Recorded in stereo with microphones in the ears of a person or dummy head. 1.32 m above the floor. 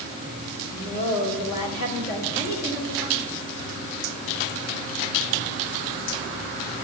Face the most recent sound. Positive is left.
turn(degrees=55)  # may be behind; listen again after turning